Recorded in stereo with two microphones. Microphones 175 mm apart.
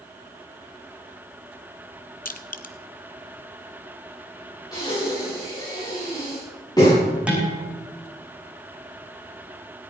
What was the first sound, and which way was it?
Crushing, 55° left (ahead or behind).